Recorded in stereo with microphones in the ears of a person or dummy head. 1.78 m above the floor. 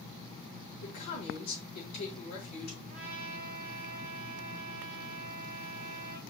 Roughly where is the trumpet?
Right.